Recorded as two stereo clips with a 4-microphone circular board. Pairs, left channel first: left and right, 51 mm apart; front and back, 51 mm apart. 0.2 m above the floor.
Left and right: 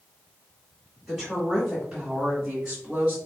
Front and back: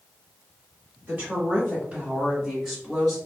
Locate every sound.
1.1 s a woman speaking: straight behind, 1.9 m; by 3.2 s 80° right, 1.6 m